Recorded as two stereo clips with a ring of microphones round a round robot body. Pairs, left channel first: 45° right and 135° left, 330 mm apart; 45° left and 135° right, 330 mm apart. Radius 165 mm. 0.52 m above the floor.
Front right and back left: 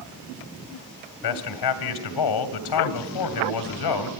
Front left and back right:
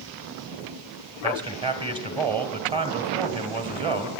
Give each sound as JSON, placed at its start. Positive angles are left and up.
{"t": 1.2, "sound": "a man speaking", "azimuth_deg": -60, "distance_m": 2.5}